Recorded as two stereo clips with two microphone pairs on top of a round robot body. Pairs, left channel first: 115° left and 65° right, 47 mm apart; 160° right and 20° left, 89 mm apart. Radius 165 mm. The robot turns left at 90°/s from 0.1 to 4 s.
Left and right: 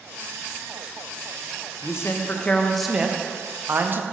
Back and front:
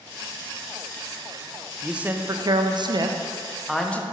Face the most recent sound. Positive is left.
turn(degrees=-90)